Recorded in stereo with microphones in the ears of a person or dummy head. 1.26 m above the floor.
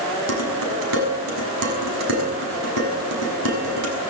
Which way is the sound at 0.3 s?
85° right.